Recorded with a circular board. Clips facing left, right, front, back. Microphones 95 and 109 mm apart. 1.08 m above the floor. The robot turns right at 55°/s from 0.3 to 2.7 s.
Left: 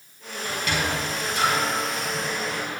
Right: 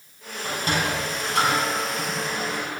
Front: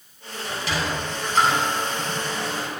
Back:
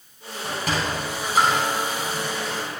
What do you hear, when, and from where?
0.4 s a sliding door: 150° right, 3.5 m; by 2.8 s 30° right, 3.5 m